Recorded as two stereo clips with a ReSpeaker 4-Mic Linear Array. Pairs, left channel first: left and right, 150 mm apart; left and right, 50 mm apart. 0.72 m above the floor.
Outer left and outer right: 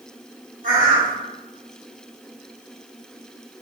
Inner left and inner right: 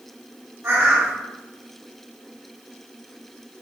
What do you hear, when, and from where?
0.6 s a bird: 60° right (ahead or behind), 1.3 m